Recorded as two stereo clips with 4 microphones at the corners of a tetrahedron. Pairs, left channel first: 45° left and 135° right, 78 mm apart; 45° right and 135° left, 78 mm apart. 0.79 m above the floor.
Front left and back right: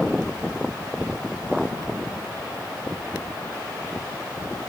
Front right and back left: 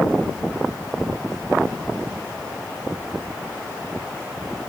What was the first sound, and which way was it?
Only background noise.